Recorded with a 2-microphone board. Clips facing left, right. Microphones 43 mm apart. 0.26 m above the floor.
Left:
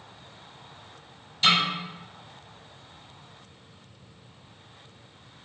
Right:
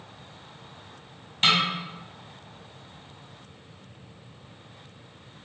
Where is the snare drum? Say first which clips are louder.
Even; 50° right (ahead or behind), 1.4 m.